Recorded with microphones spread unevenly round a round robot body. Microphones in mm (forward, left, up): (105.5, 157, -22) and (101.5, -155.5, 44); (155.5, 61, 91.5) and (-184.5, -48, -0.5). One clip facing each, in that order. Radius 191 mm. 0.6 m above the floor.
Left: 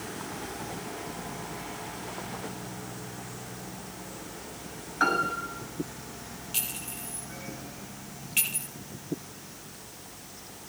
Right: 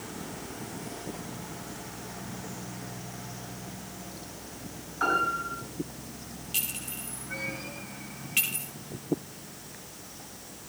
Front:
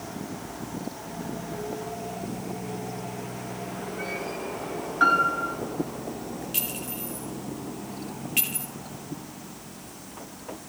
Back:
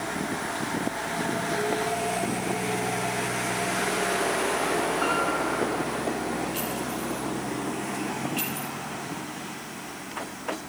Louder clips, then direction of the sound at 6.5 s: Even, back 5 dB; 5° right.